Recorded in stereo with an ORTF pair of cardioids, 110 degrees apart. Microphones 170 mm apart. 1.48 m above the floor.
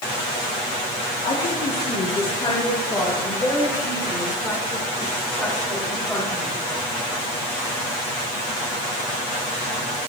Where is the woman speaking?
50° left, 1.6 m; by 6.6 s straight ahead, 4 m.